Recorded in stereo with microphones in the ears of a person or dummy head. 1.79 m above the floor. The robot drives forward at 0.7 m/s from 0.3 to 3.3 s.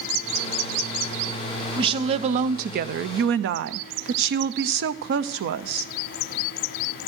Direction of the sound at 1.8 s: 30° right (ahead or behind).